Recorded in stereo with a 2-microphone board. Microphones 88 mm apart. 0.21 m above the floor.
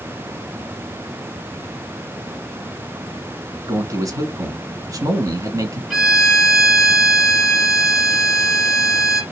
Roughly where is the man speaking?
Right.